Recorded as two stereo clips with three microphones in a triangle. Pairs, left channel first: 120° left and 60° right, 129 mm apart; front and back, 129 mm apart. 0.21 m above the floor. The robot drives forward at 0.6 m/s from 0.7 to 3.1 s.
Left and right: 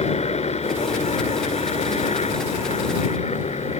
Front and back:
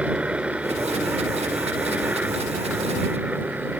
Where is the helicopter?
100° left.